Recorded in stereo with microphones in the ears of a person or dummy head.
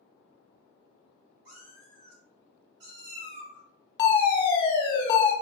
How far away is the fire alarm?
About 1.0 m.